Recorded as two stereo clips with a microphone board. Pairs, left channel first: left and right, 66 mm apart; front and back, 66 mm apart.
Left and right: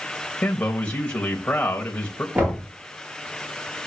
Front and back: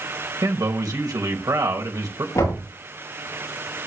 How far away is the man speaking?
About 3 m.